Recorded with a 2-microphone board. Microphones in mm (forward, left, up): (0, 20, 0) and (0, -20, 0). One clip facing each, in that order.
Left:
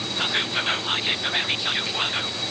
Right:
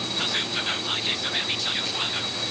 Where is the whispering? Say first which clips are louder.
Left 4 dB; 20° left (ahead or behind), 0.5 m.